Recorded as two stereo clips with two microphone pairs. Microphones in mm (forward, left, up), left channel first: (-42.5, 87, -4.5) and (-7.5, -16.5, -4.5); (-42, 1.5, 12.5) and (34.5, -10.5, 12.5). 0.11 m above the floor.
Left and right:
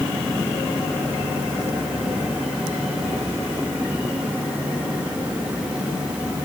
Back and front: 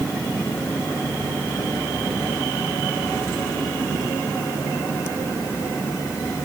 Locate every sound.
Only background noise.